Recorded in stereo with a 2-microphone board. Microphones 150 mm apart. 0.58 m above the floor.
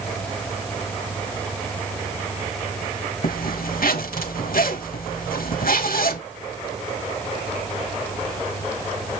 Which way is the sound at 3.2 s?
75° left (ahead or behind).